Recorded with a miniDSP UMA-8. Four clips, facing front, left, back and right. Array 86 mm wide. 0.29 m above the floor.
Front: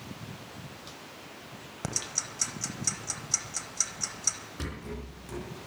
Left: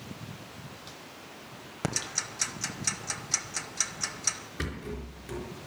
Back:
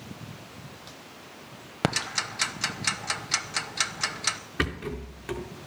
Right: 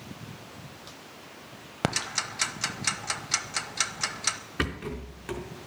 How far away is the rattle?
About 4 m.